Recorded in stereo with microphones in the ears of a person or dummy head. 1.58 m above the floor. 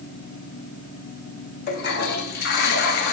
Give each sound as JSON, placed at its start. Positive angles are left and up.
{"t": 1.7, "sound": "a toilet flushing", "side_deg": 50, "distance_m": 0.9}